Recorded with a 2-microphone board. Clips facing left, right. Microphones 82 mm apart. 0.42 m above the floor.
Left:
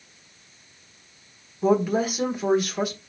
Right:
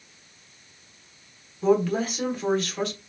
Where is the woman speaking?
10° left (ahead or behind), 1.3 m.